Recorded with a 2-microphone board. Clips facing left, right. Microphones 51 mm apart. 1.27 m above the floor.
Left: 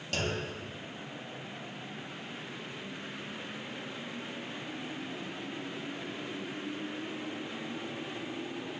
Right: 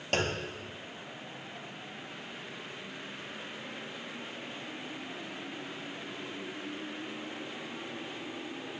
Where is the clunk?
50° right (ahead or behind), 0.6 m.